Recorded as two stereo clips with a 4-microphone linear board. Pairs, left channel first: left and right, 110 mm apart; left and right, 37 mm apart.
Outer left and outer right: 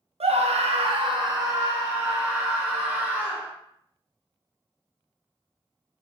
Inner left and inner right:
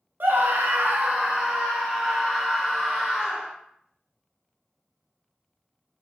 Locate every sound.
0.2 s a scream: 75° right (ahead or behind), 0.5 m; by 3.5 s 5° right (ahead or behind), 1.5 m